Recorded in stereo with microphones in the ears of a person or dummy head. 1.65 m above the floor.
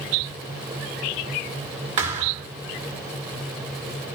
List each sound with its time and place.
2.0 s a thud: 30° right (ahead or behind), 1.9 m